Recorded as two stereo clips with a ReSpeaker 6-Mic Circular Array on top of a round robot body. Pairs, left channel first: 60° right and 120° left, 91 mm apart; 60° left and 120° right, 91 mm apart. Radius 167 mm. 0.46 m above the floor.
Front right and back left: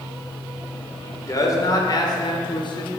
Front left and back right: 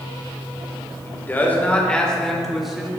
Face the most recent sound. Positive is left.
turn(degrees=-40)